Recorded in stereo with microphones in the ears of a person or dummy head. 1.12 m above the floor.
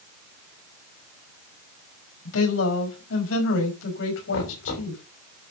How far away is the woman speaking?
About 5.5 m.